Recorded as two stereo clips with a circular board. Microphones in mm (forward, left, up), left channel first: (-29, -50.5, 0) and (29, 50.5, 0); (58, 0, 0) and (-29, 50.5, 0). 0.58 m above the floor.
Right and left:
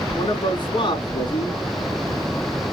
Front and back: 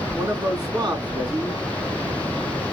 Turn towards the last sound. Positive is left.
turn(degrees=-165)